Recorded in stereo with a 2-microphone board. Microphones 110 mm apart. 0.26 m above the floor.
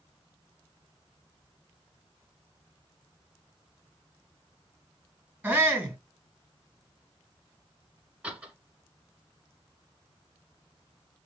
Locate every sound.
5.4 s a shout: 10° right (ahead or behind), 2.5 m
8.2 s a door slam: 10° right (ahead or behind), 2.0 m